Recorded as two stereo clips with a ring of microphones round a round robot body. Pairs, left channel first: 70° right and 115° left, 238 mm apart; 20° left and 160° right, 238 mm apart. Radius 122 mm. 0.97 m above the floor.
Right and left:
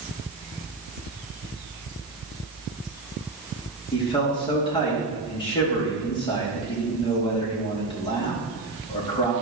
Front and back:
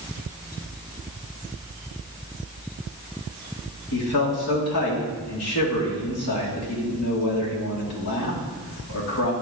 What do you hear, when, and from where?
3.9 s a man speaking: straight ahead, 2.5 m